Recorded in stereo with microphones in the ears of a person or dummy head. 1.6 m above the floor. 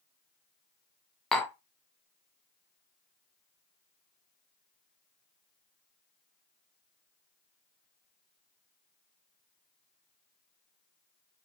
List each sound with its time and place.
1.3 s tapping: 5° left (ahead or behind), 0.6 m